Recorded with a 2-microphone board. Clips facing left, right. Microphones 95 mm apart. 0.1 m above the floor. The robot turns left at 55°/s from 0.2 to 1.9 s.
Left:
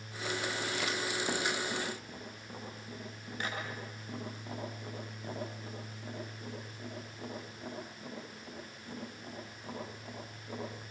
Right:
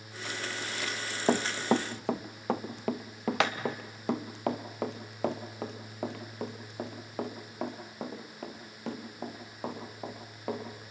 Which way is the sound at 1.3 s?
50° right (ahead or behind).